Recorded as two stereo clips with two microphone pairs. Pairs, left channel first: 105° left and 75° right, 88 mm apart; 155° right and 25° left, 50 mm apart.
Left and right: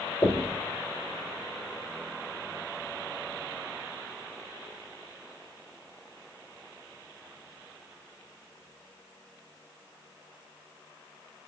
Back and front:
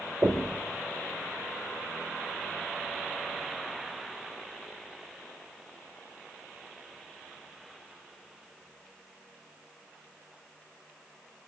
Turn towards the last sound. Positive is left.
turn(degrees=55)